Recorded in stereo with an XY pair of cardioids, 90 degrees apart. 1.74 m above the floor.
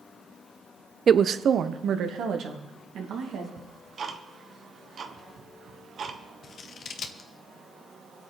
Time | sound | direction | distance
1.1 | a woman speaking | 45° right | 0.6 m
3.6 | ticking | 55° right | 1.4 m
6.4 | scissors | 65° left | 1.1 m